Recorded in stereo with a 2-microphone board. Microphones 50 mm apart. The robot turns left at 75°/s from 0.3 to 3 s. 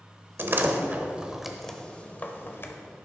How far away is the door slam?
About 1.1 m.